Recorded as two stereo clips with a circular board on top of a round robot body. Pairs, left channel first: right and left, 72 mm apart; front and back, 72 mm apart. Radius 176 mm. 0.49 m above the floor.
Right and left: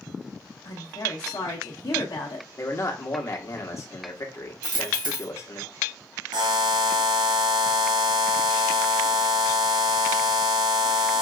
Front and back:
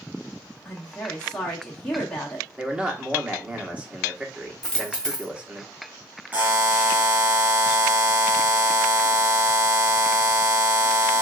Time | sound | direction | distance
0.7 | a woman speaking | 75° right | 1.1 m
2.6 | a man speaking | 110° right | 1.4 m
4.6 | a dropped coin | 80° left | 1.9 m
6.3 | a buzzer | 110° left | 0.6 m